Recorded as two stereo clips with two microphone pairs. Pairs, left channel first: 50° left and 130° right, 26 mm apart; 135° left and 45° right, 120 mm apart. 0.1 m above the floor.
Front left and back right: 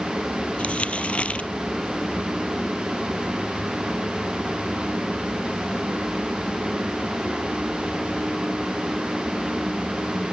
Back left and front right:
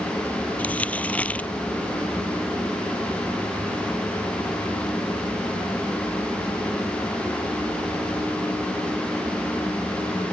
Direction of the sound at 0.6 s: 60° left.